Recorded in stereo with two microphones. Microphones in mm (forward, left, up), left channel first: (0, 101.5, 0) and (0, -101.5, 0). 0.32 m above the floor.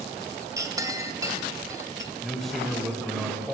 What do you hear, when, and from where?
0.6 s a clink: 20° right (ahead or behind), 1.1 m
2.2 s a man speaking: centre (ahead or behind), 1.4 m